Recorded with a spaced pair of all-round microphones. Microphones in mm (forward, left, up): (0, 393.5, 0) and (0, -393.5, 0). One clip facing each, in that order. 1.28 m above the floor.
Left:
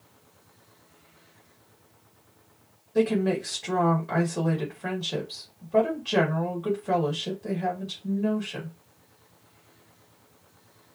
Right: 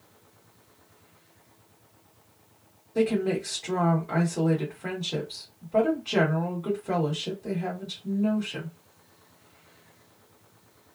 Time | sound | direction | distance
3.0 | a woman speaking | 45° left (ahead or behind) | 1.6 m